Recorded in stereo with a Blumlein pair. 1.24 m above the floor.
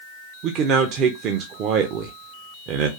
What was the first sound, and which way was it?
A man speaking, 35° right.